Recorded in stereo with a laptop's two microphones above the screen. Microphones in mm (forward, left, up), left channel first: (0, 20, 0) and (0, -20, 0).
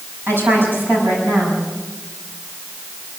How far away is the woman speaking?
About 6.5 m.